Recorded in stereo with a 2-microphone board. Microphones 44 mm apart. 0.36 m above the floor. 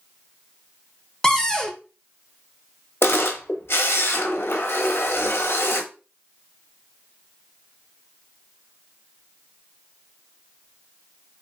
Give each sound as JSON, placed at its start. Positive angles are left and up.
{"t": 1.2, "sound": "a cupboard door", "side_deg": 15, "distance_m": 0.7}
{"t": 3.0, "sound": "a camera shutter", "side_deg": 55, "distance_m": 0.7}